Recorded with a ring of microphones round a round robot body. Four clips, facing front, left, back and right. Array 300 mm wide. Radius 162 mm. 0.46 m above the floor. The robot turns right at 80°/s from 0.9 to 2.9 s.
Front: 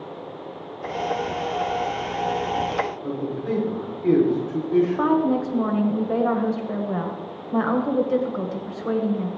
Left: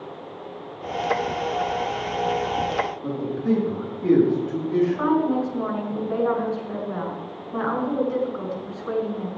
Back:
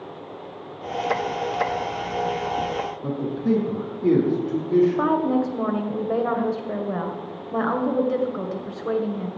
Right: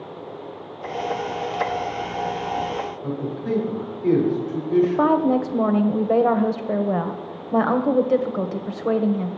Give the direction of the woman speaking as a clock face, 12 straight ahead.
3 o'clock.